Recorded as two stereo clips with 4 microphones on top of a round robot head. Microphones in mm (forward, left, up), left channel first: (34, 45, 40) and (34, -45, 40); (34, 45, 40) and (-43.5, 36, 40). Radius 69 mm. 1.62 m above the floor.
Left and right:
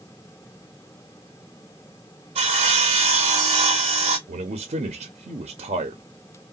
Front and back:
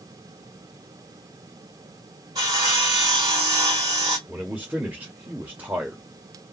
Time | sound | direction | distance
2.4 | sawing | 120° right | 0.7 m
4.3 | a man speaking | 95° right | 0.6 m